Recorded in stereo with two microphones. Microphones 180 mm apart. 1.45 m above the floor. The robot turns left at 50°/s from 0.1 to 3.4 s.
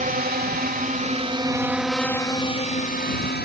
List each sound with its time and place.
0.0 s a drone: 55° right (ahead or behind); by 3.4 s 75° left (ahead or behind)